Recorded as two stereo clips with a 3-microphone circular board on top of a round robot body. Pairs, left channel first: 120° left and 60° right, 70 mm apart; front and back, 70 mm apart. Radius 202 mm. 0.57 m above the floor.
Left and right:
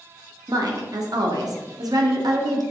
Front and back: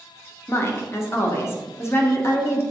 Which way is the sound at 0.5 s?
50° right.